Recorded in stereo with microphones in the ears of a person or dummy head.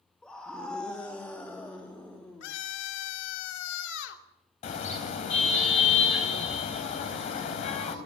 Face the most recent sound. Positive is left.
turn(degrees=45)  # may be behind; listen again after turning